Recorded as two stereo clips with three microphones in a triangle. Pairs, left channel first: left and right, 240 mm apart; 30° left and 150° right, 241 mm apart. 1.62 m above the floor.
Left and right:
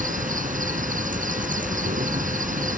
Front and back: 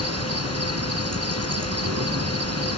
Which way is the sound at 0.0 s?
150° right.